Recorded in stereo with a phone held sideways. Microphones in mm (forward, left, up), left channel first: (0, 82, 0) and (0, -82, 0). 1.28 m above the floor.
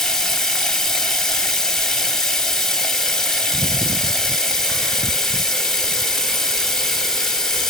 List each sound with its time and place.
0.0 s running water: 5° left (ahead or behind), 1.0 m